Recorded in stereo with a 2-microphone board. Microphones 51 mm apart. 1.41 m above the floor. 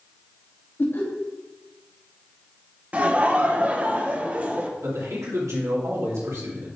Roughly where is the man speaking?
Right.